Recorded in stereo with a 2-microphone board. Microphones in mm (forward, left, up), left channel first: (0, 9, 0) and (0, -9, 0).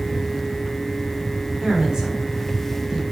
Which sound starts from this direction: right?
A woman speaking, at 1.6 s.